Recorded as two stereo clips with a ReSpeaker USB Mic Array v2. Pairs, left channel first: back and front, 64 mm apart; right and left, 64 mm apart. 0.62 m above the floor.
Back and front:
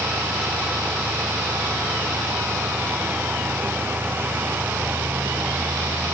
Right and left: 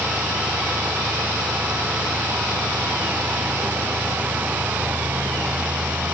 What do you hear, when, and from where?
Only background noise.